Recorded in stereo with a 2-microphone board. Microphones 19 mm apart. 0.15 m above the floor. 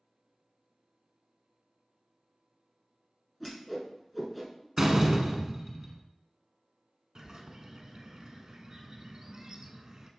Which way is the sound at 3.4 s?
Centre (ahead or behind).